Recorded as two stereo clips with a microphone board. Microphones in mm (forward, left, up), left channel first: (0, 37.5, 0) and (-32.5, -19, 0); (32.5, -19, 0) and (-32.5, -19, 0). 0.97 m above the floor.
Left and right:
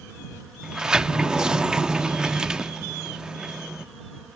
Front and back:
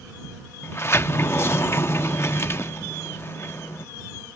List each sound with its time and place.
0.6 s a sliding door: 45° right